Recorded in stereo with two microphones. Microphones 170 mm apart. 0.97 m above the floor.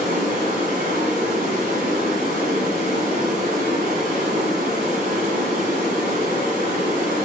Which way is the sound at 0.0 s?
55° right (ahead or behind).